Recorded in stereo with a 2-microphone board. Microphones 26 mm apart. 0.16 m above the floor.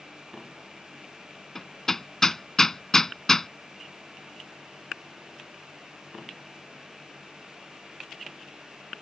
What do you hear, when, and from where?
1.6 s hammering: 15° left (ahead or behind)